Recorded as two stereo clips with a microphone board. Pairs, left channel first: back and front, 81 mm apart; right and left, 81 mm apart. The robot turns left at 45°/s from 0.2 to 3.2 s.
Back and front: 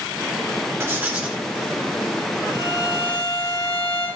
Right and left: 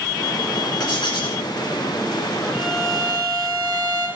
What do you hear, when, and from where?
0.8 s writing: 60° right, 2.5 m; by 1.4 s 90° right, 2.5 m
2.5 s a violin: 150° left, 5 m; by 4.1 s 120° left, 5 m